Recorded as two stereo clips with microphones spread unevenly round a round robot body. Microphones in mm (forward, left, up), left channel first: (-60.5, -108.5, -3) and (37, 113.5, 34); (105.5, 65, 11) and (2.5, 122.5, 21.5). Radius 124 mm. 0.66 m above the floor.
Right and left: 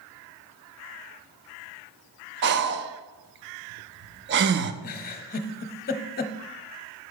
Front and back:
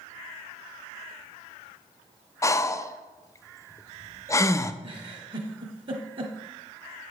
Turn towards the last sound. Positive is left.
turn(degrees=-165)